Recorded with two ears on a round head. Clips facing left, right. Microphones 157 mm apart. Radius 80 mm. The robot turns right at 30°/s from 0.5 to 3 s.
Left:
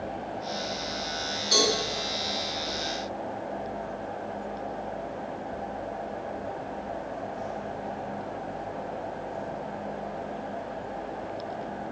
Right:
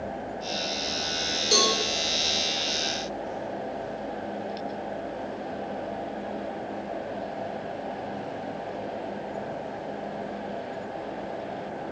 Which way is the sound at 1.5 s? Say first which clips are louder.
Even; 40° right (ahead or behind).